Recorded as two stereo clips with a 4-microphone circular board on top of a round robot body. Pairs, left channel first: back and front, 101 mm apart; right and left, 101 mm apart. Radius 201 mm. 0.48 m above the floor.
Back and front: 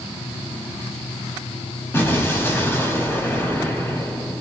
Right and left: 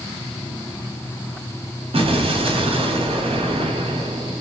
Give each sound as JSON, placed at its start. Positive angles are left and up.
{"t": 1.9, "sound": "an explosion", "azimuth_deg": 110, "distance_m": 1.0}